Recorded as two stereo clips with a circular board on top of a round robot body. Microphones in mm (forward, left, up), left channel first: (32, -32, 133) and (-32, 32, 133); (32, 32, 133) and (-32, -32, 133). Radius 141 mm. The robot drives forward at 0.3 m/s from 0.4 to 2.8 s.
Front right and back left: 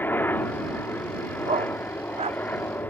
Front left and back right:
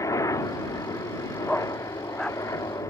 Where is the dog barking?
130° left.